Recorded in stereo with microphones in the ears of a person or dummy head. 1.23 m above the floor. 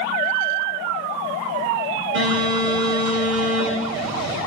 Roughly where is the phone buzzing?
Right.